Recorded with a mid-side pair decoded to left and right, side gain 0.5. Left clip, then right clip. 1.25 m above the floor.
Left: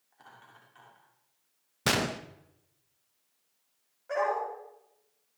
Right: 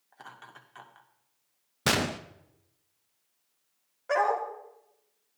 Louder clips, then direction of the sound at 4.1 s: Right 3 dB; 55° right.